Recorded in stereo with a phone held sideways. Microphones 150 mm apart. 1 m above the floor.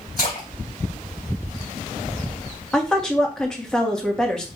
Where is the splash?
80° left, 3 m.